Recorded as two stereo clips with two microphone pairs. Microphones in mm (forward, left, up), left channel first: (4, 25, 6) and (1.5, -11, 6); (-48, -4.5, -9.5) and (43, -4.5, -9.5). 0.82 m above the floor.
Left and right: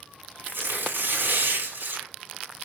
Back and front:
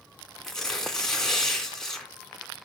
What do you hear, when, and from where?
0.4 s tearing paper: 95° right, 2.5 m